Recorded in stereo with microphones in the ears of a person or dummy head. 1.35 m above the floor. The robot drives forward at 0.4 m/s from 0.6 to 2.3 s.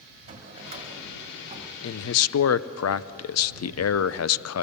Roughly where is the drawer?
Right.